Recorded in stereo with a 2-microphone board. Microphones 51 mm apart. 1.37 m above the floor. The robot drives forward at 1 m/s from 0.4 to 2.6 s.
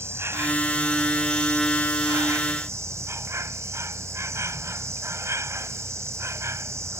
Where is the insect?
60° right (ahead or behind); by 7.0 s 70° right (ahead or behind).